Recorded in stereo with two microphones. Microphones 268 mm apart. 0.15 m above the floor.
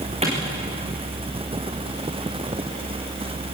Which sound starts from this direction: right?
A clap, at 0.2 s.